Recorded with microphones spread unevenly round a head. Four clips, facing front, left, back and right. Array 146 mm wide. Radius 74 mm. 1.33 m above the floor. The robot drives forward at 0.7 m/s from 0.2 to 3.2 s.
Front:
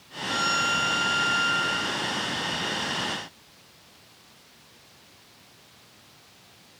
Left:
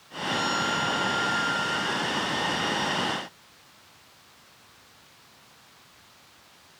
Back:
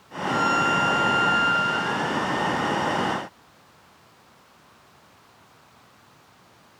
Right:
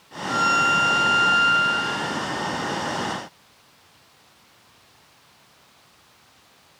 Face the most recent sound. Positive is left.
turn(degrees=-95)